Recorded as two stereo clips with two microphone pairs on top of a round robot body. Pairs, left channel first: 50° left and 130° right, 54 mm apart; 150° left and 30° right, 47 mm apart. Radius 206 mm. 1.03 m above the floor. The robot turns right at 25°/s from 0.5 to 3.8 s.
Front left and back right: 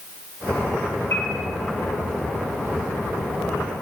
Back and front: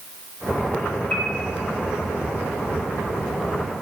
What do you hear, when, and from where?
1.1 s a piano: 95° left, 2.5 m